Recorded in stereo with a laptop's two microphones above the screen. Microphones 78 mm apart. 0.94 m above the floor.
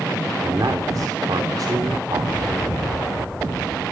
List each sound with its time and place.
0.4 s a man speaking: 60° right (ahead or behind), 2.5 m